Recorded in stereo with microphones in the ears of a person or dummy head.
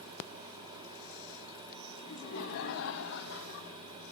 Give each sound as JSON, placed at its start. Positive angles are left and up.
{"t": 2.0, "sound": "laughter", "side_deg": 75, "distance_m": 5.0}